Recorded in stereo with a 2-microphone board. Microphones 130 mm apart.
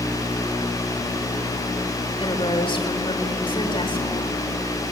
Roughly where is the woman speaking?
Left.